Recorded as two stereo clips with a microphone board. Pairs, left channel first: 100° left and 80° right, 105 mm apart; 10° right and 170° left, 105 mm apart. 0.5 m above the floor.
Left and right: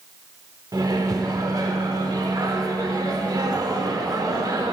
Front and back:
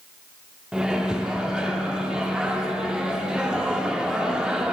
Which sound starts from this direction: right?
A microwave, at 0.7 s.